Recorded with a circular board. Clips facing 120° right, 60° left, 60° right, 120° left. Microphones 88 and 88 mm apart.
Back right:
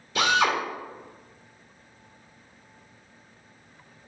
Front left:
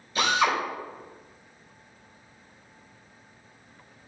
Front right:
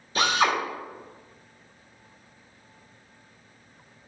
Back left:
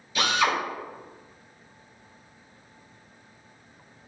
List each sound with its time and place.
0.1 s a drill: 110° right, 2.5 m